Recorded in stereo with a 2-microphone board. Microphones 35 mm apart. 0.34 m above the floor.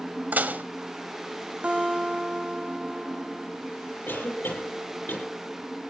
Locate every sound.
0.3 s dishes clattering: 55° right (ahead or behind), 1.3 m
1.6 s a guitar: 35° right (ahead or behind), 4 m
4.1 s a cough: 70° left (ahead or behind), 7.5 m